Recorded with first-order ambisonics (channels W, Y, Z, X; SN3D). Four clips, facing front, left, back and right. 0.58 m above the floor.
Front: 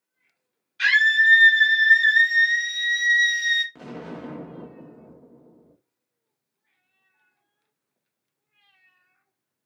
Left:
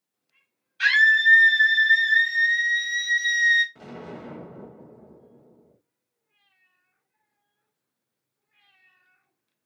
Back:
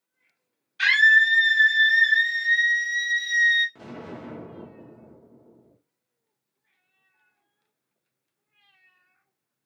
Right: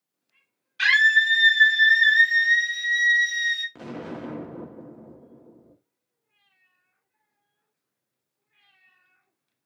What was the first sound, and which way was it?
A scream, 100° right.